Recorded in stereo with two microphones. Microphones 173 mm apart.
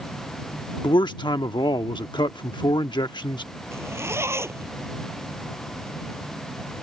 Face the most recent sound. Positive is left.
turn(degrees=-15)  # may be behind; listen again after turning